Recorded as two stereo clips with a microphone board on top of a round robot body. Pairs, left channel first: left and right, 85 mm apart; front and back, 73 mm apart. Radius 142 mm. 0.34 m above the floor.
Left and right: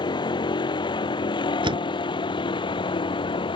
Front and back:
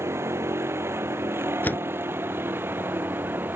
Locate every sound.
0.0 s a vehicle: 125° left; by 3.6 s 115° left
1.6 s a door slam: 65° right